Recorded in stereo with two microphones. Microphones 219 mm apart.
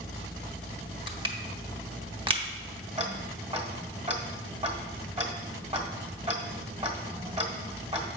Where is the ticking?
35° right (ahead or behind), 1.3 m.